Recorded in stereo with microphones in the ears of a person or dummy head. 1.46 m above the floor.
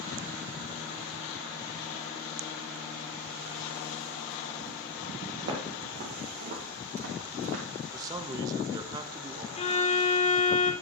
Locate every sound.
5.4 s footsteps: 50° right (ahead or behind), 2.5 m; by 7.6 s 60° right (ahead or behind), 4.5 m
7.9 s a man speaking: 25° right (ahead or behind), 0.6 m
9.6 s a violin: 35° left (ahead or behind), 0.6 m